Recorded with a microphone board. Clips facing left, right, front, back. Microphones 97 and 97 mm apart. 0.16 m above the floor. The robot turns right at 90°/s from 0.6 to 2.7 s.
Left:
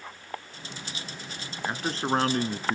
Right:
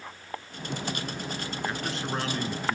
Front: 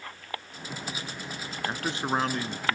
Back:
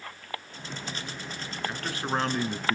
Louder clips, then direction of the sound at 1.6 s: Left 6 dB, front 2 dB; 35° left.